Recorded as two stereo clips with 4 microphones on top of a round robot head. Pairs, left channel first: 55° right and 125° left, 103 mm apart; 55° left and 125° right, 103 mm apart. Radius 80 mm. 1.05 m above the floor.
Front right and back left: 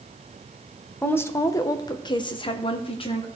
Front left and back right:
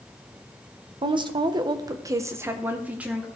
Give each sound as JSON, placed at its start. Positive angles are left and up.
{"t": 1.0, "sound": "a woman speaking", "azimuth_deg": -120, "distance_m": 1.0}